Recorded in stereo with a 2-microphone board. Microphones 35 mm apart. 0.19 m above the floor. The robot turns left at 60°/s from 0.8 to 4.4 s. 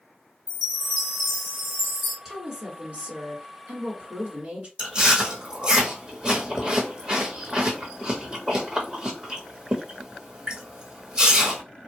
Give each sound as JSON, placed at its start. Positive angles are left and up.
{"t": 0.5, "sound": "a chime", "azimuth_deg": 20, "distance_m": 1.5}
{"t": 2.2, "sound": "a woman speaking", "azimuth_deg": -10, "distance_m": 1.8}
{"t": 4.8, "sound": "chewing", "side_deg": -25, "distance_m": 1.4}